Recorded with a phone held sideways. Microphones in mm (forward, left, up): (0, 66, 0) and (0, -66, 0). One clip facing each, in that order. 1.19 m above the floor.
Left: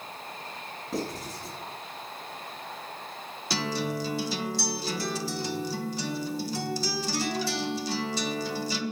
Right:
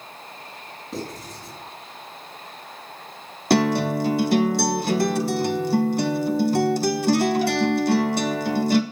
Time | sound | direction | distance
0.9 | writing | centre (ahead or behind) | 6 m
3.5 | a guitar | 60° right (ahead or behind) | 1.1 m